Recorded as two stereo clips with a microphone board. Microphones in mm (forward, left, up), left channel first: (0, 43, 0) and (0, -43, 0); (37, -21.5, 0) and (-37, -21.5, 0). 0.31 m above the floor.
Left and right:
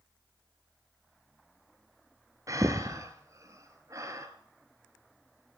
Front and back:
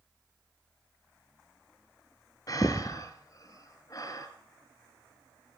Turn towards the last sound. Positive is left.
turn(degrees=-40)